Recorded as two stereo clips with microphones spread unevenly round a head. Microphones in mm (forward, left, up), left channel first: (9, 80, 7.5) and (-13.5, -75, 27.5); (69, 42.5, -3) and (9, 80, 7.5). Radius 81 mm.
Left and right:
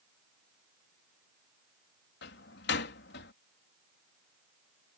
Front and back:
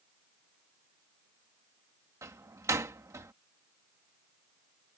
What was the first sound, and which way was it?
A door slam, 105° left.